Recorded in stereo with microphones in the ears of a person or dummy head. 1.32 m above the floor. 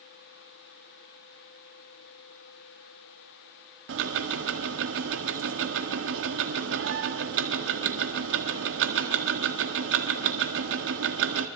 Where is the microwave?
No microwave in this recording.